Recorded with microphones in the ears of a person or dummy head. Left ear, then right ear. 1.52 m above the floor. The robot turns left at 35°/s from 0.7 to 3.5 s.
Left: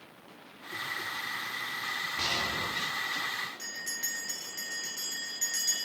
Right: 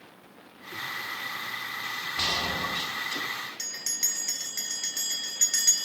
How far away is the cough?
No cough in this recording.